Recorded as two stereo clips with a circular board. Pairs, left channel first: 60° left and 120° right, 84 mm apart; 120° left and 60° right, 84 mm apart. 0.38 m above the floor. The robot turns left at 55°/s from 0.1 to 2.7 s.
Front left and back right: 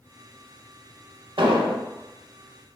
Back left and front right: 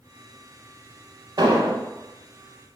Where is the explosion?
100° right, 0.5 m; by 1.8 s 125° right, 0.5 m.